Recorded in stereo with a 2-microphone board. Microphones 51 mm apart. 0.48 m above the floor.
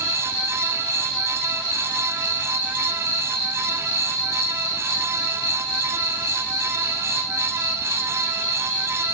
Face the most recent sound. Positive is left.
turn(degrees=10)  # may be behind; listen again after turning